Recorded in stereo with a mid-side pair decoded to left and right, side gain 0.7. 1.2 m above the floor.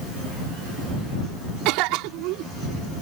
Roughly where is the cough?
Right.